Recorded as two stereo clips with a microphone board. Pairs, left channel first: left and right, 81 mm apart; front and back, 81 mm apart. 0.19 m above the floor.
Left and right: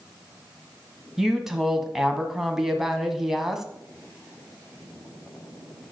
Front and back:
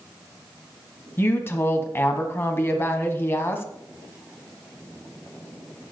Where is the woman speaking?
10° right, 1.3 m.